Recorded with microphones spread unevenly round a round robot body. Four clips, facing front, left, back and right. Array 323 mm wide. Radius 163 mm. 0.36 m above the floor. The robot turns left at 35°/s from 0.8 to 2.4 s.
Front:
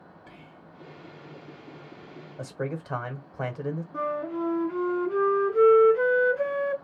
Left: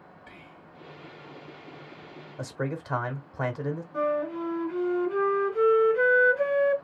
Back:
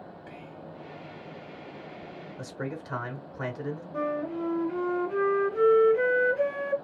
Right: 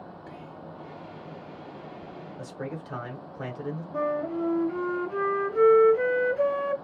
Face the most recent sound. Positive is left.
turn(degrees=-110)